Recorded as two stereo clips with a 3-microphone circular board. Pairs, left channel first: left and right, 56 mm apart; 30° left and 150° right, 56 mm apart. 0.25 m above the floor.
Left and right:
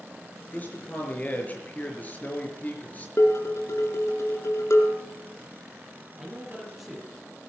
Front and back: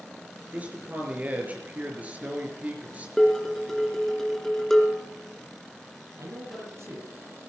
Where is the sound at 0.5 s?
150° left, 5 m.